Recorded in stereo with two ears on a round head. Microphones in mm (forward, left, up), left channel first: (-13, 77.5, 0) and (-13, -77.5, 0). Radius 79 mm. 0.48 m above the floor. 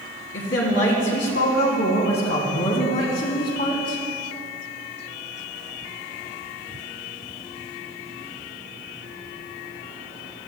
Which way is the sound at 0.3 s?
80° left.